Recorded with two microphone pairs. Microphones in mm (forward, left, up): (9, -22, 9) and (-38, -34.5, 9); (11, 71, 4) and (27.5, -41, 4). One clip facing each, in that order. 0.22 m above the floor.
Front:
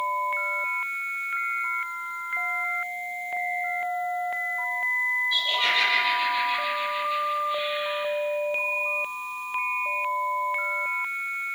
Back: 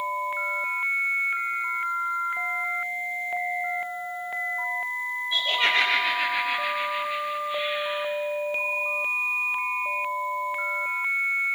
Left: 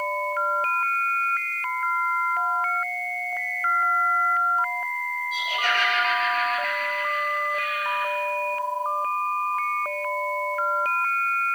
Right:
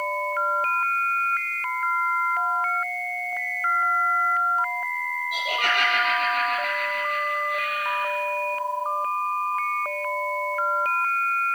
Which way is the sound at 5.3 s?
100° right.